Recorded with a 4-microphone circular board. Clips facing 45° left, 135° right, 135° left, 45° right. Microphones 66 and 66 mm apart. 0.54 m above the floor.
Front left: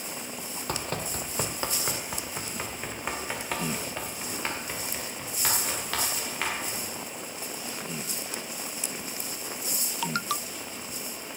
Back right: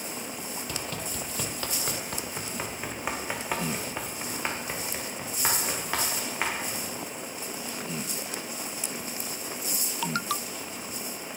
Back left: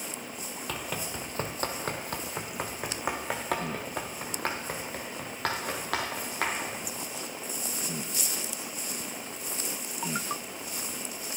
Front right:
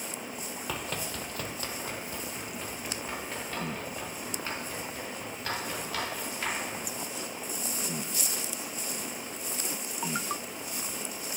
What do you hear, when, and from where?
0.7 s running footsteps: 40° left, 0.8 m; by 6.8 s 155° left, 4 m